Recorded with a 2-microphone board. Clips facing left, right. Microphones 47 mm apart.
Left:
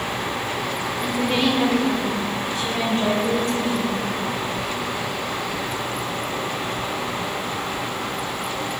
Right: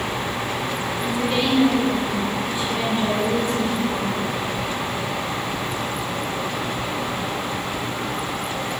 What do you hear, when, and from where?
1.0 s a woman speaking: 50° left (ahead or behind), 1.8 m; by 4.0 s 70° left (ahead or behind), 3.5 m